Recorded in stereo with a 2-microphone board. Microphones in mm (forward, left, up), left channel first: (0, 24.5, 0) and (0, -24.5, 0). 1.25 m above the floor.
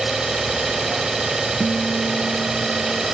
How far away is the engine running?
About 4 m.